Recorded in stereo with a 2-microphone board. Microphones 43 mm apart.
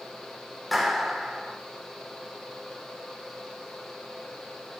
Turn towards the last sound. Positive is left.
turn(degrees=0)  # may be behind; listen again after turning